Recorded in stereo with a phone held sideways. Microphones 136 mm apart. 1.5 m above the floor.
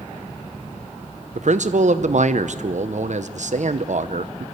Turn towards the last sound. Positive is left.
turn(degrees=-60)  # may be behind; listen again after turning